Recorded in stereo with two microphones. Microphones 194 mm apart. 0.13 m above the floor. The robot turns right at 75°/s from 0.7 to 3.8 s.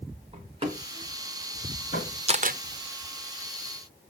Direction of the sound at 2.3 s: 30° right (ahead or behind).